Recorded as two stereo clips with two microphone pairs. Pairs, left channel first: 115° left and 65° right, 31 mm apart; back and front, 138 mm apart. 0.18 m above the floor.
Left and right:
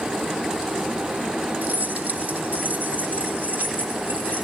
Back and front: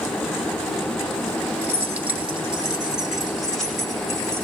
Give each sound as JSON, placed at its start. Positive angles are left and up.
{"t": 1.6, "sound": "keys jangling", "azimuth_deg": -70, "distance_m": 3.0}